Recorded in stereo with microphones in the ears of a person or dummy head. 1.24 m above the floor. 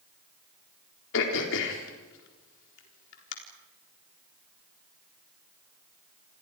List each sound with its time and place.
1.1 s throat clearing: 65° left (ahead or behind), 4 m